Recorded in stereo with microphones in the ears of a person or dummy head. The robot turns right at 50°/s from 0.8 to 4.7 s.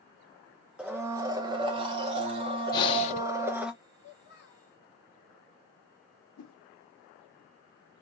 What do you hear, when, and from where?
0.8 s a blender: 10° right (ahead or behind), 0.6 m; by 3.7 s 5° right (ahead or behind), 0.6 m
2.7 s breathing: 20° left (ahead or behind), 0.6 m; by 3.2 s 40° left (ahead or behind), 0.6 m
4.0 s a child speaking: 35° left, 1.2 m; by 4.7 s 70° left, 1.2 m
6.4 s a whoosh: 85° left, 0.8 m